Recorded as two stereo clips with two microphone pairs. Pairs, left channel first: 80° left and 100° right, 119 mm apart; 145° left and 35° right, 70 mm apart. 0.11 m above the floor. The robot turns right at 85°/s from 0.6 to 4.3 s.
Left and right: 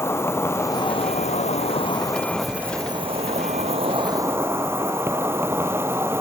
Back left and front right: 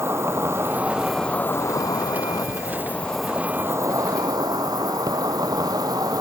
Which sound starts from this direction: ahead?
An insect, at 0.0 s.